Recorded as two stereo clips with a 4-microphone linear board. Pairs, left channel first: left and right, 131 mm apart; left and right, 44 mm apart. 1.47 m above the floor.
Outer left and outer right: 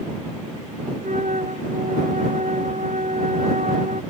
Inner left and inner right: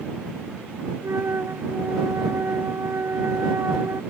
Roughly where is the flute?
Right.